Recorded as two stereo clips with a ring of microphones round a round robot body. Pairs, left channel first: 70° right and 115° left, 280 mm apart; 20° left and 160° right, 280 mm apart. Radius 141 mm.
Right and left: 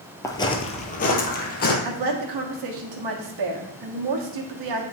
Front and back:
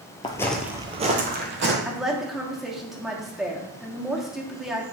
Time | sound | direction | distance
0.2 | footsteps | 10° right | 0.9 m
1.9 | a woman speaking | 115° left | 1.3 m